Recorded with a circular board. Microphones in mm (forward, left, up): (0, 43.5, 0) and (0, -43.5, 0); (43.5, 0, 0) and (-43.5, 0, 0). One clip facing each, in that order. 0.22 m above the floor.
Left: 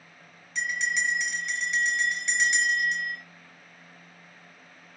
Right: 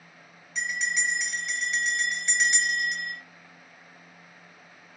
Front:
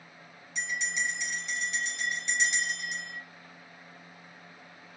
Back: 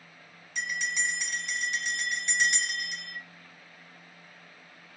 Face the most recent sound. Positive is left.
turn(degrees=-175)